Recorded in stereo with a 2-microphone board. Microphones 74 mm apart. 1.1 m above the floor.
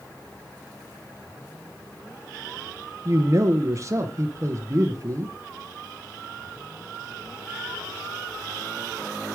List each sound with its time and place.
3.0 s a man speaking: 40° right (ahead or behind), 0.7 m